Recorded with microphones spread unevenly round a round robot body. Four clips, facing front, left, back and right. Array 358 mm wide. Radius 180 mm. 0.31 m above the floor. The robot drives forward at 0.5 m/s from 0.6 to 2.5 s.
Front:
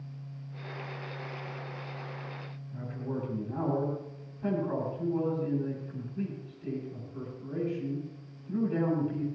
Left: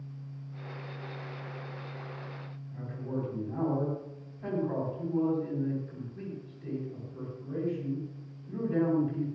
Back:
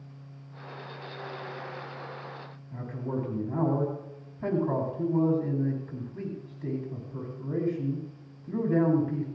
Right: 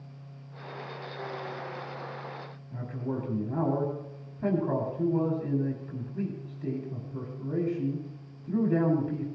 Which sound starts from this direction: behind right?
A man speaking, at 2.7 s.